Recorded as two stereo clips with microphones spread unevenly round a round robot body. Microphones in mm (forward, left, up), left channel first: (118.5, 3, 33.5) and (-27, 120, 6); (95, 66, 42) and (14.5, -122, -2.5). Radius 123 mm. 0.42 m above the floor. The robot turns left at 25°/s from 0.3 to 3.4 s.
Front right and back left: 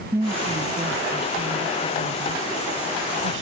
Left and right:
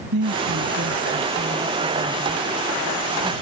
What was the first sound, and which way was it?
A woman speaking, 140° right.